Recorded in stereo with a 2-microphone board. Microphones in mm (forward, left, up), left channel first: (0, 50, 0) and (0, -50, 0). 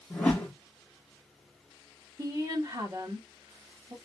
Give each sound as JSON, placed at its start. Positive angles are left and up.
{"t": 0.1, "sound": "a whoosh", "side_deg": 15, "distance_m": 1.1}
{"t": 2.2, "sound": "a woman speaking", "side_deg": -40, "distance_m": 1.1}